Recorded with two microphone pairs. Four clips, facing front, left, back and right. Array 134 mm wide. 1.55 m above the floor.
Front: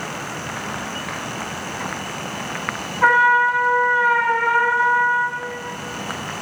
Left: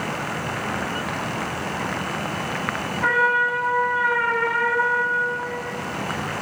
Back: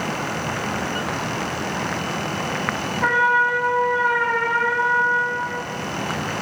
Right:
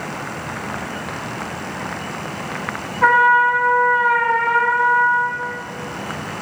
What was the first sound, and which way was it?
A trumpet, 65° right.